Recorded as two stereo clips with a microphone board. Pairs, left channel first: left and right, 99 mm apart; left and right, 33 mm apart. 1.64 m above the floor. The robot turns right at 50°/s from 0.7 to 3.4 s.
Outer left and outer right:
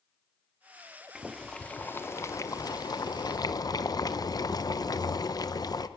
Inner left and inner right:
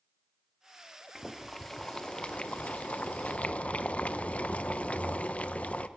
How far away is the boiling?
About 0.8 m.